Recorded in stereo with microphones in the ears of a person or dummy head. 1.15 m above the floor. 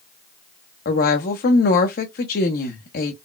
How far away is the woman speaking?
About 0.7 m.